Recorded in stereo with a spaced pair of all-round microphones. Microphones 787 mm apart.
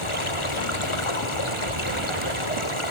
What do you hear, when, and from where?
0.0 s running water: 40° left (ahead or behind), 1.9 m